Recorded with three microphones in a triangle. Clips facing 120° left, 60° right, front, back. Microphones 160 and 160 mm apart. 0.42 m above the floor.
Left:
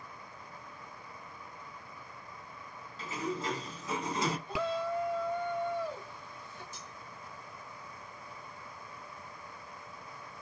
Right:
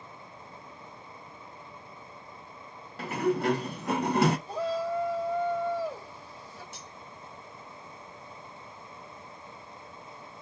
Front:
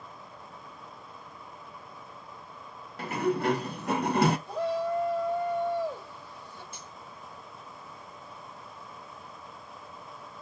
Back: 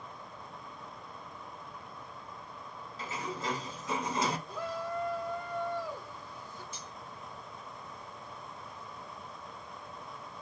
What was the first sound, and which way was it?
A sliding door, 30° right.